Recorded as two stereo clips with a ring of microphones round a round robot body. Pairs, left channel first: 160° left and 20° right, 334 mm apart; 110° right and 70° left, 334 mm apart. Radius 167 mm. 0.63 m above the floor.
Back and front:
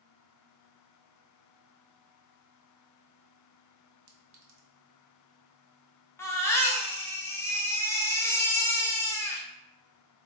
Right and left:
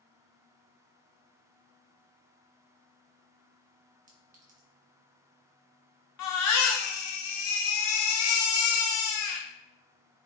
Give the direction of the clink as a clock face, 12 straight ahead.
12 o'clock.